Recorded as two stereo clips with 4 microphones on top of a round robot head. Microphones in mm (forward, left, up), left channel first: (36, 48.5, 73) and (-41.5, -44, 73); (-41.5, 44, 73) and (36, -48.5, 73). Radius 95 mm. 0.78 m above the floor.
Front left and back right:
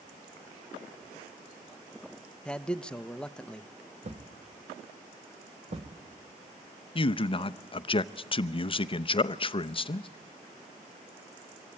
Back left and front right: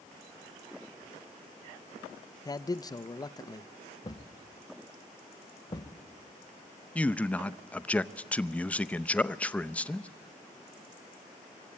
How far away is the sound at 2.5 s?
About 0.7 m.